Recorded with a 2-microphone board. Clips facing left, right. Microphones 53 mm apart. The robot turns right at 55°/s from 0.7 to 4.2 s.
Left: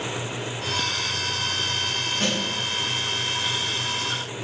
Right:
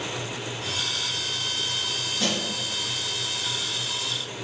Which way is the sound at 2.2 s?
35° left (ahead or behind).